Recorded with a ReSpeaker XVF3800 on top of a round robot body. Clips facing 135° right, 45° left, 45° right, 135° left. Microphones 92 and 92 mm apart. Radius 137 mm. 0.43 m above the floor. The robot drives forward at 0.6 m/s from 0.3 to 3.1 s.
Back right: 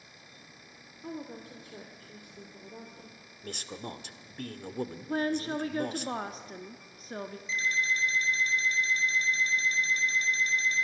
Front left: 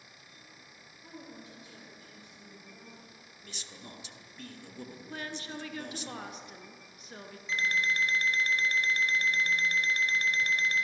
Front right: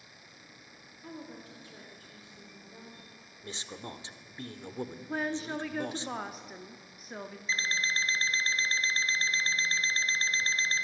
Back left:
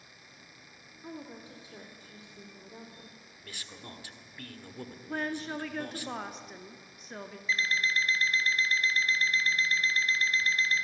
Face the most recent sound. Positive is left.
turn(degrees=20)